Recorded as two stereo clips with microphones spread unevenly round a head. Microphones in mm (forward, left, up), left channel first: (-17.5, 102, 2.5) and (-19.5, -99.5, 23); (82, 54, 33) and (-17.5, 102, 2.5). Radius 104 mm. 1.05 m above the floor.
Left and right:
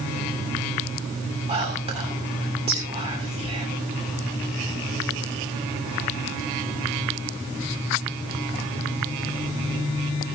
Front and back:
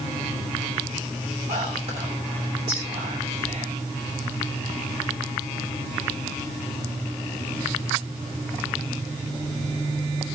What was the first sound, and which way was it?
Whispering, 155° right.